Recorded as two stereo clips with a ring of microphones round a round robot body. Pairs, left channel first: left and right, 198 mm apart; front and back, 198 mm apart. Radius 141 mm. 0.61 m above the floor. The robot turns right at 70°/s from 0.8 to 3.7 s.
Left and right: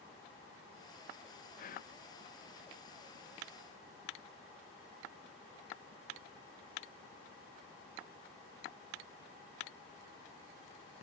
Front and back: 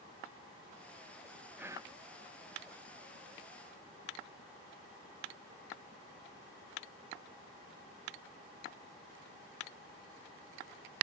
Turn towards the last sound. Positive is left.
turn(degrees=-110)